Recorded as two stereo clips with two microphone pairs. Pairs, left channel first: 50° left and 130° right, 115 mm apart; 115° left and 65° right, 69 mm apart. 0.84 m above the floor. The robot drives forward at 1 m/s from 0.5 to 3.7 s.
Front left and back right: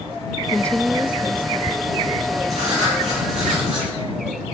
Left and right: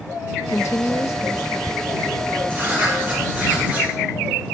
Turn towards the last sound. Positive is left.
turn(degrees=-130)